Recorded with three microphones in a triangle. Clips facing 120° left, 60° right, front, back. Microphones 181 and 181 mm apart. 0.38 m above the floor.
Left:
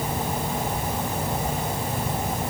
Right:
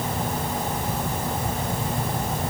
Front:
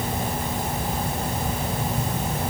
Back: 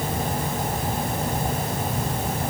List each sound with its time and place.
Only background noise.